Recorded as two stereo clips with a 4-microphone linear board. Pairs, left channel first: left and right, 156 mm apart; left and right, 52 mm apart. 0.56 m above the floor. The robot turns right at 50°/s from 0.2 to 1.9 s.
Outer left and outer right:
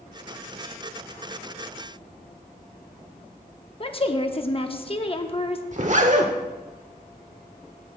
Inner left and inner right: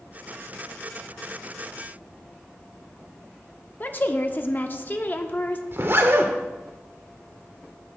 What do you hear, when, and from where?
3.8 s a woman speaking: 35° left (ahead or behind), 0.8 m
5.7 s a zipper: 50° right (ahead or behind), 0.9 m